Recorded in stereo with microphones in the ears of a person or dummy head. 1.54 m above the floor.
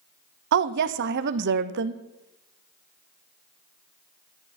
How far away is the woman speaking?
About 0.9 m.